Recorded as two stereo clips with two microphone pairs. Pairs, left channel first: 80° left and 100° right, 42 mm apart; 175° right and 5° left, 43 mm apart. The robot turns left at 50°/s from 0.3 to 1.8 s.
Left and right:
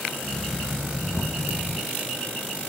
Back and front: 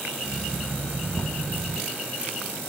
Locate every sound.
1.1 s knocking: 105° left; by 1.4 s 90° left